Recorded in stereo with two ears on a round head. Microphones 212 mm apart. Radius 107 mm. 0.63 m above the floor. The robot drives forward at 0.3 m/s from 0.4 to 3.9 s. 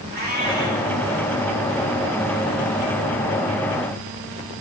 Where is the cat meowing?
45° right (ahead or behind), 4.5 m.